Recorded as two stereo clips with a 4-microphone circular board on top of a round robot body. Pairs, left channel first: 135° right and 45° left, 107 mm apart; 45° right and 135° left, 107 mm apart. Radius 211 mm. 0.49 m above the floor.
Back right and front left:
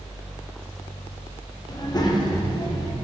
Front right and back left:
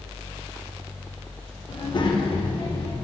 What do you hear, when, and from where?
1.7 s a child speaking: 85° right, 1.5 m